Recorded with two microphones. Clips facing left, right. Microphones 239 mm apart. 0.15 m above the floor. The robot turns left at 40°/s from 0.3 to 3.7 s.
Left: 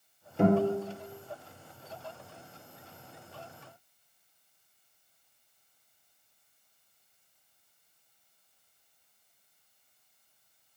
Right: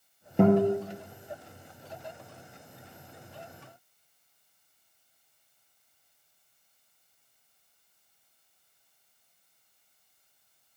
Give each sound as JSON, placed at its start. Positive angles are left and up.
{"t": 0.4, "sound": "a guitar", "side_deg": -60, "distance_m": 2.5}